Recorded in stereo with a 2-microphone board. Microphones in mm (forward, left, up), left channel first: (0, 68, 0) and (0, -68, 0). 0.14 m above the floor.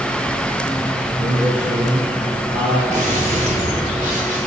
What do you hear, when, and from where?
1.2 s a man speaking: 65° right (ahead or behind), 3.5 m; by 2.8 s 70° right (ahead or behind), 4 m
2.9 s a gunshot: 65° right (ahead or behind), 7.5 m